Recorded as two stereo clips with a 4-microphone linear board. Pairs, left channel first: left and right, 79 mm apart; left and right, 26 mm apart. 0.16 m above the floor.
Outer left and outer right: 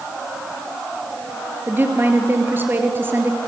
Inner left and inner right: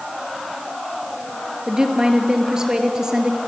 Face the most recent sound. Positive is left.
turn(degrees=-25)  # may be behind; listen again after turning